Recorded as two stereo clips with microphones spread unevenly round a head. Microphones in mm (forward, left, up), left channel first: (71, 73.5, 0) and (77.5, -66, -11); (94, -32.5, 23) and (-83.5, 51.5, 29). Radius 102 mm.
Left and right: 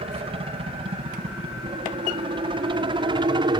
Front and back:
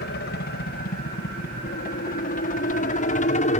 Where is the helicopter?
50° right; by 3.6 s 55° right.